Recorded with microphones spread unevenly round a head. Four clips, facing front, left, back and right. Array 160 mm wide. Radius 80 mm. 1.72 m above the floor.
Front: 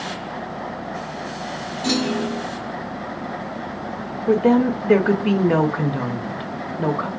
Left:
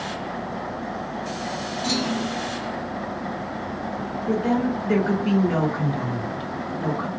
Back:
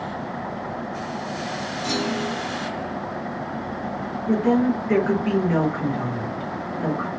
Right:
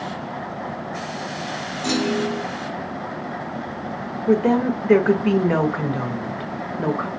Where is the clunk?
25° right, 0.9 m.